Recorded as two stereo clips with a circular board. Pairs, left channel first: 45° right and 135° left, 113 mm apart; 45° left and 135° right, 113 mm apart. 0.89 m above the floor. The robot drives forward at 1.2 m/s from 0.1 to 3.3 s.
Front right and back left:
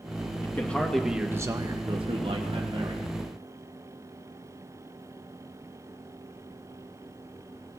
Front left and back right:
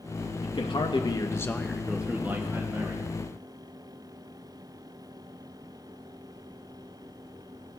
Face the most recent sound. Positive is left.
turn(degrees=170)